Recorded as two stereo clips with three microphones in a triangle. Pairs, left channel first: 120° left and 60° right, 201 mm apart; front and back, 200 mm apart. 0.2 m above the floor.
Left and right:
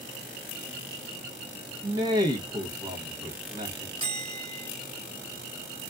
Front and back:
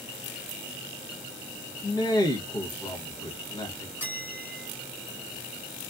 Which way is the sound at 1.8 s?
35° right.